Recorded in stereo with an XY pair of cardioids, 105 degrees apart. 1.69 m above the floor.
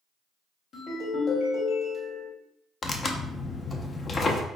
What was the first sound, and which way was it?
A ringtone, 60° left.